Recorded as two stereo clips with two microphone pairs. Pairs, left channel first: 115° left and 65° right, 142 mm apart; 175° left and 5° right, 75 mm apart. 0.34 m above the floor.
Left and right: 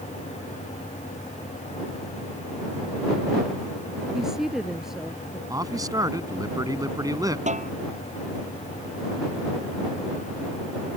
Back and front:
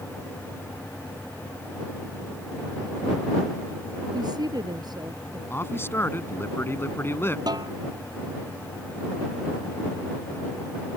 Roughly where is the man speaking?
Behind right.